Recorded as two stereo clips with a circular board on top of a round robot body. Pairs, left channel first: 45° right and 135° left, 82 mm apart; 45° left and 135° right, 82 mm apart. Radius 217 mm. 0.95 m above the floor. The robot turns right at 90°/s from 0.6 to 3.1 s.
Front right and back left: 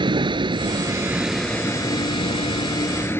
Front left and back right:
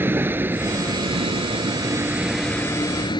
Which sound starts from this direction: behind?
A vehicle, at 0.0 s.